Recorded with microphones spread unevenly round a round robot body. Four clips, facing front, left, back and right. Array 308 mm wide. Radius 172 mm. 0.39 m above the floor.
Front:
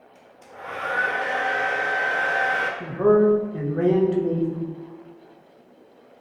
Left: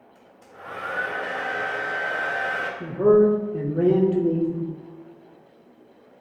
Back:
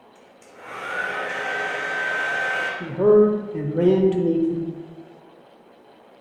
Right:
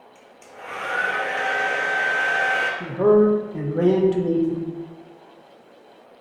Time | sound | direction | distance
0.1 | a hair dryer | 30° right | 1.5 m
2.8 | a man speaking | 170° left | 0.8 m